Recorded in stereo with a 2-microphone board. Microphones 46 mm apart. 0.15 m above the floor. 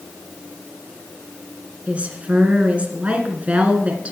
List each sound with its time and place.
1.9 s a woman speaking: 30° right (ahead or behind), 1.8 m